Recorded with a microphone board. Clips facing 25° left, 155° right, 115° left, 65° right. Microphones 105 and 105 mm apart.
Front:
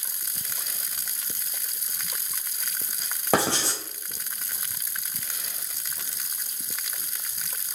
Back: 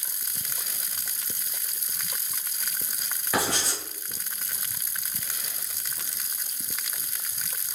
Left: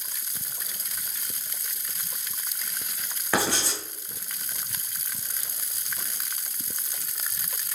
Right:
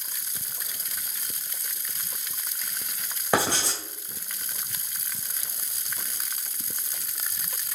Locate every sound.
3.3 s writing: straight ahead, 3.5 m